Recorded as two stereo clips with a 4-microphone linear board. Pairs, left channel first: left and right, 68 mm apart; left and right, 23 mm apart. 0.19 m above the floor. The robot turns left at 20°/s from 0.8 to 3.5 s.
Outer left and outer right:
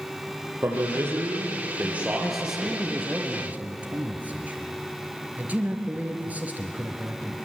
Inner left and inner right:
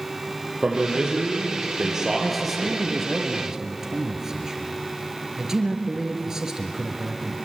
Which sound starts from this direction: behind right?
A man speaking, at 0.6 s.